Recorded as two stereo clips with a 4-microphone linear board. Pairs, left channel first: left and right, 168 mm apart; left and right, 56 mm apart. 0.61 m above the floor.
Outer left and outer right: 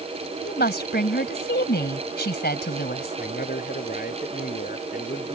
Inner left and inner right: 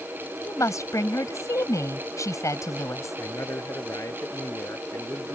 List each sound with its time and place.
0.4 s a woman speaking: 75° left (ahead or behind)
3.2 s a man speaking: 60° left (ahead or behind)